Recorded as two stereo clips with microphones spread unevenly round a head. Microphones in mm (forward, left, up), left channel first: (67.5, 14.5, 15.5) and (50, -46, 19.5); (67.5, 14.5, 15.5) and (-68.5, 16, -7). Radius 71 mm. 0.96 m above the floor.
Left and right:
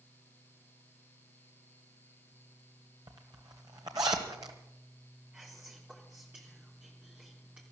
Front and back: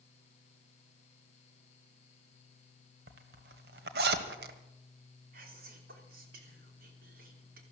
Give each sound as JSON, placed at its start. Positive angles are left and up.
{"t": 3.1, "sound": "a zipper", "azimuth_deg": -160, "distance_m": 1.5}
{"t": 5.3, "sound": "whispering", "azimuth_deg": 170, "distance_m": 3.0}